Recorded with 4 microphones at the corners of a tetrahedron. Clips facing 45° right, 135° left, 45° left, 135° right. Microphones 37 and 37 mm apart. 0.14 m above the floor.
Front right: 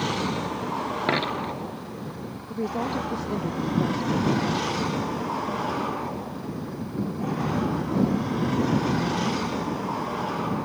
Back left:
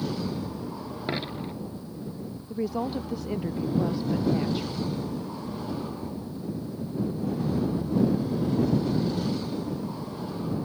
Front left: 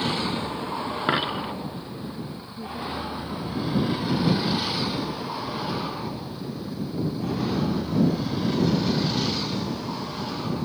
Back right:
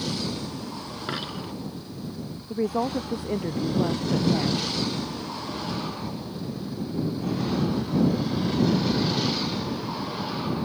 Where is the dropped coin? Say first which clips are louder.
Front right 5 dB, front left 7 dB; straight ahead.